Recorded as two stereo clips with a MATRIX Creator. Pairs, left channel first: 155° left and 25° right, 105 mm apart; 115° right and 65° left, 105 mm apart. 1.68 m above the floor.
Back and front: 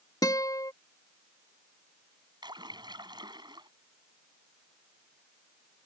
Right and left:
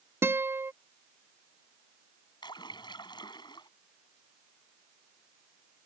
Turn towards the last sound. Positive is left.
turn(degrees=-65)